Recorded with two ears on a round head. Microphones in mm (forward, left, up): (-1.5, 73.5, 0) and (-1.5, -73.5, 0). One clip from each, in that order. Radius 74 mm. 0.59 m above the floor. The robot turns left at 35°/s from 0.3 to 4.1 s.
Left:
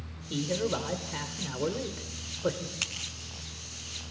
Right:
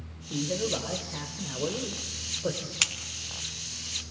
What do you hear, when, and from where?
0.3 s a man speaking: 135° left, 1.7 m; by 2.7 s 50° left, 1.7 m
2.8 s scissors: 50° right (ahead or behind), 2.5 m; by 2.9 s 45° right (ahead or behind), 2.5 m